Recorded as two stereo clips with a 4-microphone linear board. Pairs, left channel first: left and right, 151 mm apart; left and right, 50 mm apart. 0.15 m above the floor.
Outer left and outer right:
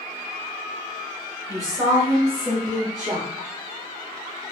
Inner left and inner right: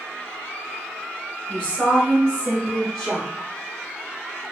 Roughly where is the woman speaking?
Left.